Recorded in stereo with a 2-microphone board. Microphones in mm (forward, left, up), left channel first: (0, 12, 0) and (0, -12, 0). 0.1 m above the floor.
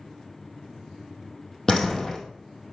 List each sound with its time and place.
1.7 s a door slam: 20° left (ahead or behind), 2.5 m